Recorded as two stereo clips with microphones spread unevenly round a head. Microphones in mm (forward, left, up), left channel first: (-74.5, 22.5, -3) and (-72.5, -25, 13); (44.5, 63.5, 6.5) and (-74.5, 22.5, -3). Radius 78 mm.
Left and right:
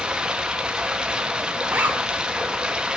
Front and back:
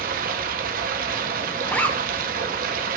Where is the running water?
150° right, 1.5 m.